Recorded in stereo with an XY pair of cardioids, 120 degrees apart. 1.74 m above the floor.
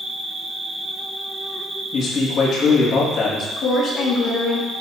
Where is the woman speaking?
60° left, 2.5 m.